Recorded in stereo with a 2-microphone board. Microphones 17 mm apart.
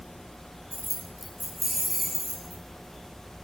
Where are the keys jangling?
5° right (ahead or behind), 2.5 m.